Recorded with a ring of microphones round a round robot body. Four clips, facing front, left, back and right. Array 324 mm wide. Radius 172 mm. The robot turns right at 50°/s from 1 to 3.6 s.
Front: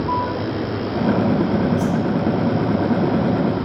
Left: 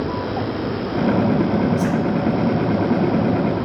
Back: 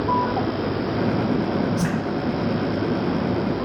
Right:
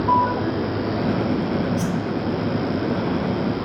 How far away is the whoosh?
About 0.5 m.